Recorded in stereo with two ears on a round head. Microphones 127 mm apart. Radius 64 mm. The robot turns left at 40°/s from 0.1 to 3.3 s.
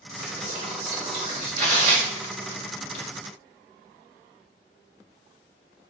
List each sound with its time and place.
0.2 s whispering: straight ahead, 1.8 m; by 1.5 s 55° right, 1.8 m
1.6 s tearing paper: 45° right (ahead or behind), 0.9 m; by 3.0 s 40° right (ahead or behind), 0.9 m